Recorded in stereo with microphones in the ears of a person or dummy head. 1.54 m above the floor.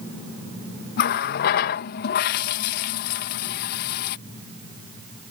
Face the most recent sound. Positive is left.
turn(degrees=50)  # may be behind; listen again after turning